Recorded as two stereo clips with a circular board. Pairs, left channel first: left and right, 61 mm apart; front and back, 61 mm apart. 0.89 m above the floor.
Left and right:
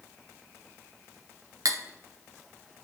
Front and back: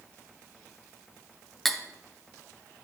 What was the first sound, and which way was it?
Cutlery clinking, 85° right.